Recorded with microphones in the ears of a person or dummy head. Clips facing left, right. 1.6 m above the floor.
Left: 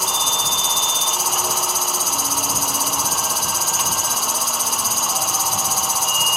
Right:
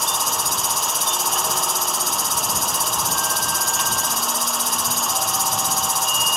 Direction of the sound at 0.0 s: Centre (ahead or behind).